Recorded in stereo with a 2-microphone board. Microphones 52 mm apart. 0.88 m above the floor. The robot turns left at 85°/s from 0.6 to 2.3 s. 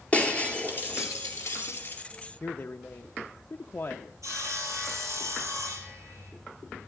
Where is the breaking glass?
155° left, 2.5 m; by 2.0 s 30° left, 2.5 m.